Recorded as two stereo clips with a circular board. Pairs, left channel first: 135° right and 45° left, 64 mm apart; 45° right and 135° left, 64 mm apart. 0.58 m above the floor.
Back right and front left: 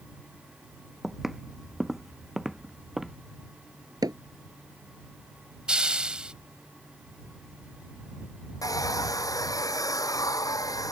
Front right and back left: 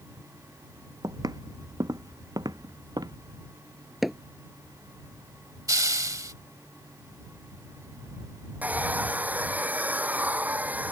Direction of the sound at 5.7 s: 120° left.